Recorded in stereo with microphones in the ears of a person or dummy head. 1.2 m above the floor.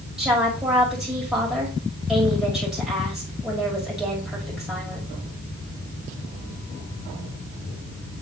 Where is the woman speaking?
5° right (ahead or behind), 1.9 m.